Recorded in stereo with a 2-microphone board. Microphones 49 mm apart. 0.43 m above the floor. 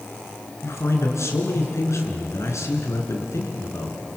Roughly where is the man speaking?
Left.